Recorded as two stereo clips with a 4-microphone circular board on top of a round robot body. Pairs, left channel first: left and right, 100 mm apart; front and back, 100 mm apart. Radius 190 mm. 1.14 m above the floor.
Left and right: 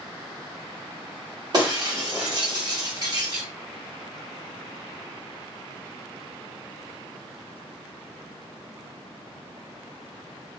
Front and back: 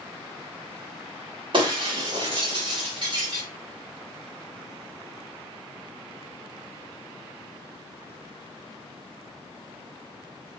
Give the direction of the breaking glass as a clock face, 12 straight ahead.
5 o'clock.